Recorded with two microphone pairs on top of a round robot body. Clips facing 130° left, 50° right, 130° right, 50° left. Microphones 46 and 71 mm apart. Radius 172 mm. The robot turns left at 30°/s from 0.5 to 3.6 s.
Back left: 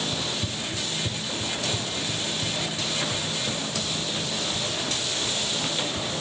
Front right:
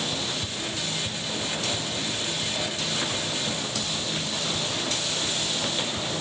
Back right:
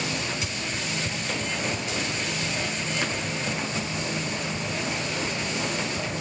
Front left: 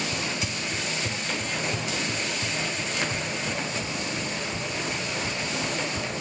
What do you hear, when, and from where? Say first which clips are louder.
0.1 s running footsteps: back left 1 dB, even; 80° left, 0.7 m; by 6.1 s 65° left, 6 m